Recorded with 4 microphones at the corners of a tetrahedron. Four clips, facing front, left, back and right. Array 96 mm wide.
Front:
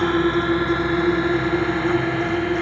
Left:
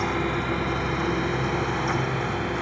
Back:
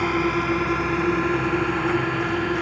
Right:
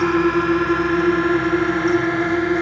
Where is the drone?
75° right; by 2.6 s 80° right.